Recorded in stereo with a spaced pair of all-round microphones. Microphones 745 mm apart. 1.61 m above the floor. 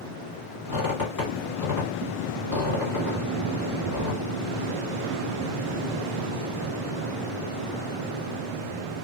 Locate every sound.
0.7 s a squeak: 25° left (ahead or behind), 1.7 m